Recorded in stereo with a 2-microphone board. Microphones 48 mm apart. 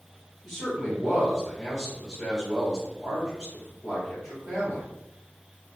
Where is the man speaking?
5° right (ahead or behind), 1.3 m.